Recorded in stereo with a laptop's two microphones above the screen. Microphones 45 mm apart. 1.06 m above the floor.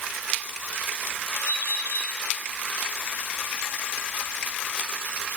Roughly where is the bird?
Left.